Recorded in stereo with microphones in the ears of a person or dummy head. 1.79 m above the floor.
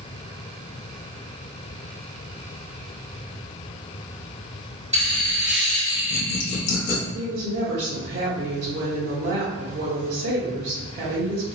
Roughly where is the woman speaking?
Right.